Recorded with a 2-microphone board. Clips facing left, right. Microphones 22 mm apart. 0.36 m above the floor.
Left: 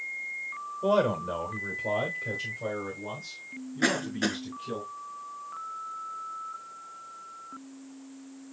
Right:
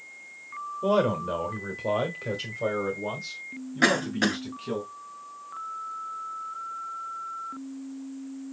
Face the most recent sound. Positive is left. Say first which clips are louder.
# right 4 dB
turn(degrees=-35)  # may be behind; listen again after turning